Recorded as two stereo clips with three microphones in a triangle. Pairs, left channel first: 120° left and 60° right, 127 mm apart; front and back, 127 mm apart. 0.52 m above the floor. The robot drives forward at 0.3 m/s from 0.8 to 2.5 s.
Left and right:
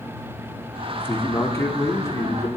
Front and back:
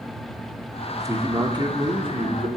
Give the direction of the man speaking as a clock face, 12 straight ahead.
7 o'clock.